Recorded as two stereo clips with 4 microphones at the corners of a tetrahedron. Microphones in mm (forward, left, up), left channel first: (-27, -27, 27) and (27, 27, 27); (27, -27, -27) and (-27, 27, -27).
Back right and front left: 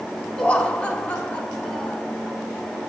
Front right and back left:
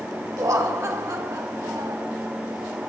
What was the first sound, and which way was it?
Laughter, 155° left.